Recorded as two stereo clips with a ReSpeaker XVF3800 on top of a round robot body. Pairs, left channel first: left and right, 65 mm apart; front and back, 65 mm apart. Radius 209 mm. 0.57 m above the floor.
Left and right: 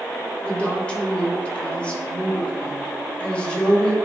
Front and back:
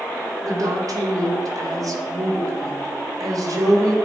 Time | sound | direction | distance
0.4 | a woman speaking | 160° left | 1.8 m